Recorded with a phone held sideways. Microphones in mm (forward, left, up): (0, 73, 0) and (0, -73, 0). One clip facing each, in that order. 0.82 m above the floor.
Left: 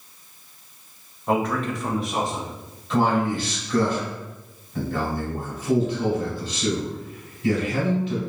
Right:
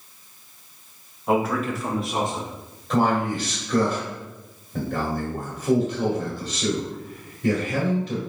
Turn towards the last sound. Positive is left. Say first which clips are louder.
# even
turn(degrees=-45)  # may be behind; listen again after turning